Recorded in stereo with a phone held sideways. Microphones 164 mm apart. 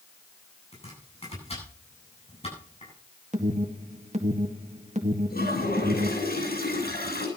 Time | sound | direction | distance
0.7 | chopping | 40° left (ahead or behind) | 9 m
3.3 | an alarm | 45° right (ahead or behind) | 1.9 m
5.3 | a toilet flushing | 75° left (ahead or behind) | 8.5 m